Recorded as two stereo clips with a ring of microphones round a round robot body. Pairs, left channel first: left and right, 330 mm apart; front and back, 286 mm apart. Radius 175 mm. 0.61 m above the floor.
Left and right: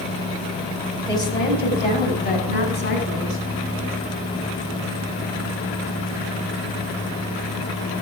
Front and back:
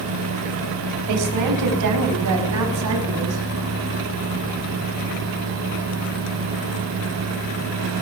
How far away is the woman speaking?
About 3.5 m.